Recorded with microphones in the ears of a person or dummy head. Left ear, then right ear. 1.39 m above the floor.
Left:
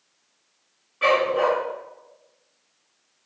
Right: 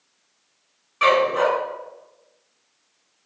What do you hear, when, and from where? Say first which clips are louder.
1.0 s a dog barking: right 2 dB; 75° right (ahead or behind), 5.5 m